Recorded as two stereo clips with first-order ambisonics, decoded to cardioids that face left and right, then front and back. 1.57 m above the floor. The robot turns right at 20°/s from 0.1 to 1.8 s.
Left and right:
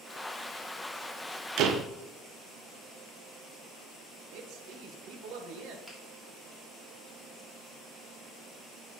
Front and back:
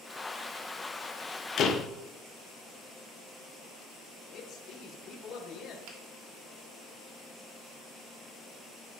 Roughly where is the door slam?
Ahead right.